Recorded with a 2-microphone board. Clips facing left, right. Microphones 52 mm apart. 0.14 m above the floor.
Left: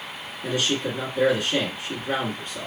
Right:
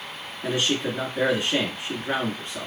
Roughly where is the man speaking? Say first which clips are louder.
Even; right.